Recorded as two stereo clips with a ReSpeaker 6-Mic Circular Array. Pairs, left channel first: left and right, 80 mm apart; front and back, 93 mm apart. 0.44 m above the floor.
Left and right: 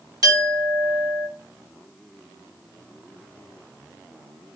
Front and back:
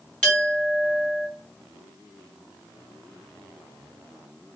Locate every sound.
0.2 s a clink: 75° right, 1.3 m